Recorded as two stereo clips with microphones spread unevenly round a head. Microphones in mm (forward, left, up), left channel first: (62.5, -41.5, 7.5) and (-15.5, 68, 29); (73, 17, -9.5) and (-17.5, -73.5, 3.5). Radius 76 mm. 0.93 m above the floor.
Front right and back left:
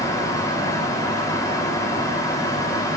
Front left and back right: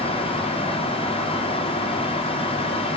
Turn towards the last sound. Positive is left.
turn(degrees=10)